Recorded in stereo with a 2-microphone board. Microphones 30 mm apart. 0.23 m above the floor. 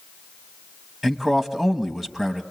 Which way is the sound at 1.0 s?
10° right (ahead or behind).